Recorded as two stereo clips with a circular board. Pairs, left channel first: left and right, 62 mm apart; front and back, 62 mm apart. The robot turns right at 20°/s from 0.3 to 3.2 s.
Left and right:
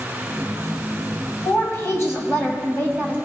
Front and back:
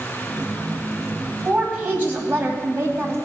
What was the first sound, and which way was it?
A woman speaking, 115° left.